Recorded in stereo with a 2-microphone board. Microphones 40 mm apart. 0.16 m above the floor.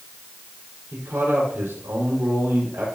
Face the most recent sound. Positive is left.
turn(degrees=-75)  # may be behind; listen again after turning